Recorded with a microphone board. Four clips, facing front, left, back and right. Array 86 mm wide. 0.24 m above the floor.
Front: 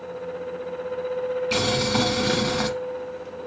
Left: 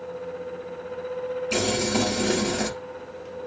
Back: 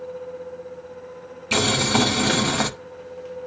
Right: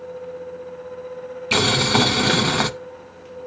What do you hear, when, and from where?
1.5 s boiling: 105° right, 0.9 m